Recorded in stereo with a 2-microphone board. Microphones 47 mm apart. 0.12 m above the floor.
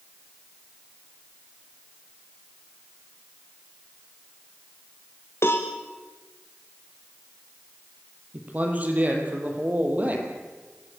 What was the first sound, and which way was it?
A cowbell, 65° left (ahead or behind).